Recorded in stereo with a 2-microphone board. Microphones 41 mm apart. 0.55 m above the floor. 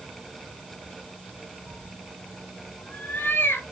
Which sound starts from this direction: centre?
A cat meowing, at 1.7 s.